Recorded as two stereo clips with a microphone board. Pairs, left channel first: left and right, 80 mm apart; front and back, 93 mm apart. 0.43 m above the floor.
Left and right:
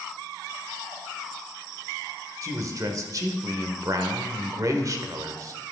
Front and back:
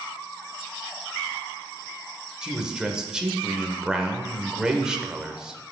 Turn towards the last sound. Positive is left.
turn(degrees=-100)